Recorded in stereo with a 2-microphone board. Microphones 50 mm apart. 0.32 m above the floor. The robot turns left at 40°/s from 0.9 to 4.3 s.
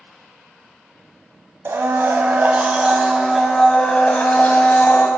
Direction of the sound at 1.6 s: 110° right.